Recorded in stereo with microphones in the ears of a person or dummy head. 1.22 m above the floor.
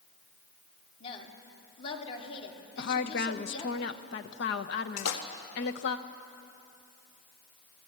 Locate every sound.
1.0 s a woman speaking: 35° left (ahead or behind), 3 m
2.8 s a woman speaking: 55° left (ahead or behind), 1.0 m
5.0 s a splash: 85° left, 2.0 m